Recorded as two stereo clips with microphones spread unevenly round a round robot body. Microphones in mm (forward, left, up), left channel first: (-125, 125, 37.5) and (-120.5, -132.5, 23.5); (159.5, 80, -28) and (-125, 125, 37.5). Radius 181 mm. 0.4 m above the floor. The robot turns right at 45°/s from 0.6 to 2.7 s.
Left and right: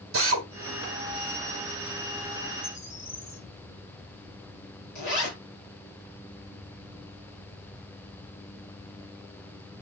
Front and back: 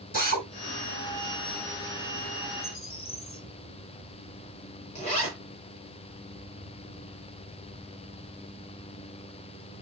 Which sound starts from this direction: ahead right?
A drill, at 0.1 s.